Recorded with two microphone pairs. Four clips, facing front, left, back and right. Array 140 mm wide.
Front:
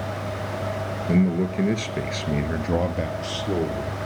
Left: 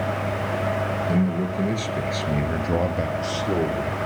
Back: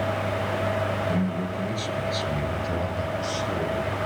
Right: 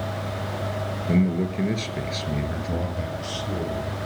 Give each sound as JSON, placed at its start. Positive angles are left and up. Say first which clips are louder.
{"t": 1.1, "sound": "a man speaking", "louder": "right 4 dB, front 5 dB", "azimuth_deg": -30, "distance_m": 1.8}